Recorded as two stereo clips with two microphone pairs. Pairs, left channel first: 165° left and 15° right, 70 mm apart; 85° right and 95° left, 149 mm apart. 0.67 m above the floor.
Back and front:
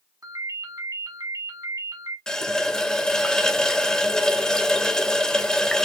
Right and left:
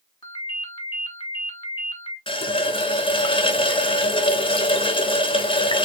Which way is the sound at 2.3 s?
120° right.